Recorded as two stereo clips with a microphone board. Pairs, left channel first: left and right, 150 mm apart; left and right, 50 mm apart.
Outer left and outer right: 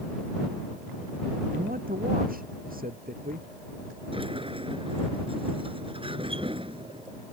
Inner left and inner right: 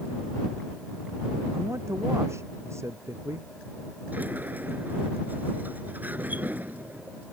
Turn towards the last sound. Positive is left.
turn(degrees=-35)  # may be behind; listen again after turning